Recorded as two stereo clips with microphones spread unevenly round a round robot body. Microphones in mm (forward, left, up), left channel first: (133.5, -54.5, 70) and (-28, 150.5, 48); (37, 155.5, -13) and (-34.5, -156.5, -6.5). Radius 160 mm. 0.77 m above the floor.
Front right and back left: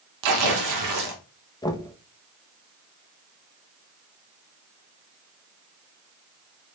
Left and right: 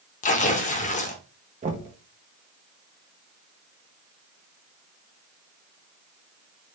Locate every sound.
0.2 s tearing paper: 145° left, 0.5 m
1.6 s knocking: 110° right, 0.6 m